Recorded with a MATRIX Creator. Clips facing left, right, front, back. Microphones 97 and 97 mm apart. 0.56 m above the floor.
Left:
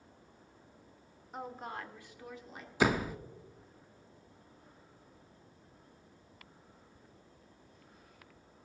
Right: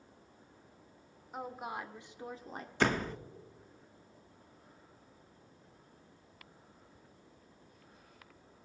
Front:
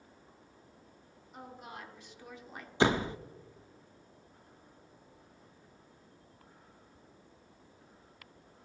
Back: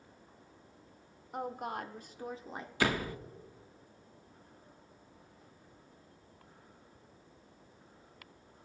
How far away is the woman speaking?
About 1.3 m.